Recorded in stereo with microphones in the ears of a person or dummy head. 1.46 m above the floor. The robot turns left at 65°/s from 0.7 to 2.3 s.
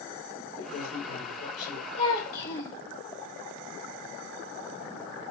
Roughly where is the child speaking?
Left.